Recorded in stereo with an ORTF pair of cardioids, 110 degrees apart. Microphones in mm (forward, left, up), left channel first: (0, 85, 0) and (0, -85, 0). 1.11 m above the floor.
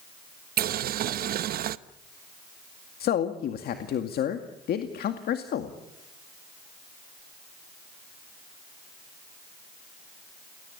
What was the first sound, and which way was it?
Boiling, 55° right.